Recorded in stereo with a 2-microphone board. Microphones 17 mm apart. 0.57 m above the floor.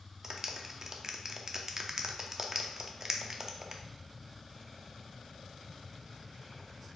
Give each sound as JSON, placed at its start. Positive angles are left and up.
{"t": 0.2, "sound": "a clap", "side_deg": -25, "distance_m": 0.5}